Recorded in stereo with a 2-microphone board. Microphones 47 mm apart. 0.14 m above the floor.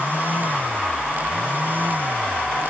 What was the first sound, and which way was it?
Only background noise.